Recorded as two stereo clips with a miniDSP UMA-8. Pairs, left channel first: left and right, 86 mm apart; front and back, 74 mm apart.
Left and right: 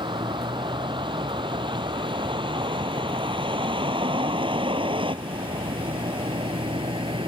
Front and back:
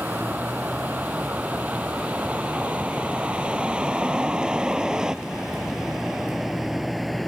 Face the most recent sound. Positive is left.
turn(degrees=-90)